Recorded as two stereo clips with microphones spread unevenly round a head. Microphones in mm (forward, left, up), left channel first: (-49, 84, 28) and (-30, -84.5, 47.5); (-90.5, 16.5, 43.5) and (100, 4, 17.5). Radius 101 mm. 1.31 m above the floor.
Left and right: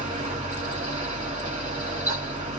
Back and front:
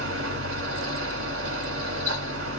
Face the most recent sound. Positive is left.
turn(degrees=-30)